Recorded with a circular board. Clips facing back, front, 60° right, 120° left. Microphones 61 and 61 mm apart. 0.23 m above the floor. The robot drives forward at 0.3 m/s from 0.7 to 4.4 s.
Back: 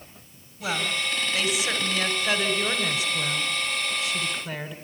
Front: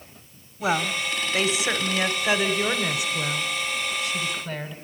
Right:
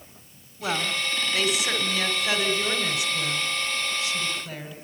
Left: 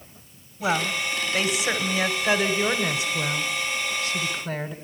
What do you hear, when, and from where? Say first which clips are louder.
0.6 s a woman speaking: front 3 dB, left 3 dB; 50° left, 2.0 m; by 4.8 s 95° left, 1.7 m